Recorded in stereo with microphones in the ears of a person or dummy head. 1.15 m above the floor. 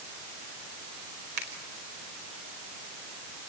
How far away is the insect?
No insect in this recording.